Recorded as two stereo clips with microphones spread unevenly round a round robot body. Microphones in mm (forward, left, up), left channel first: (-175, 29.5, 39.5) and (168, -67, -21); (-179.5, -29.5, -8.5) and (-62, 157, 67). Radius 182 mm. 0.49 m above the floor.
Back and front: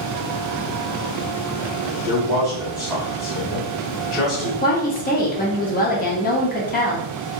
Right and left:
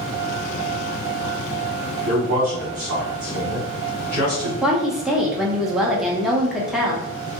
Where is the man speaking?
80° left, 1.0 m.